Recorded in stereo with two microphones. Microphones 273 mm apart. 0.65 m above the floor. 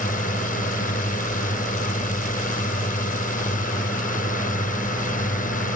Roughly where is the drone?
Left.